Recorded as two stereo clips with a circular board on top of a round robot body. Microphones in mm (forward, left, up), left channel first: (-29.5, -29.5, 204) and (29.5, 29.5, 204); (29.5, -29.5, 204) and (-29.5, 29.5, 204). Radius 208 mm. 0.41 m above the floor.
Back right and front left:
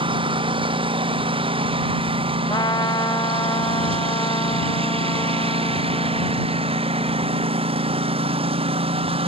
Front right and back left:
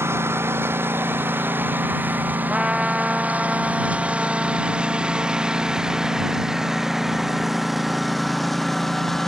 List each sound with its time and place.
0.0 s a lawn mower: 70° left; by 9.3 s 40° left
2.5 s a trumpet: 150° right